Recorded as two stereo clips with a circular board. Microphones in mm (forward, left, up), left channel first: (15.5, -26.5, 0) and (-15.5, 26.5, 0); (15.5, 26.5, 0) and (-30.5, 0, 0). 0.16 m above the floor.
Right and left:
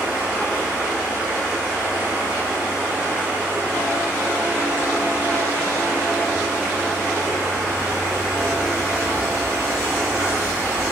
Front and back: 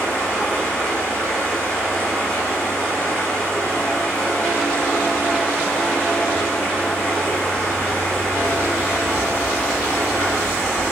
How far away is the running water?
About 1.4 m.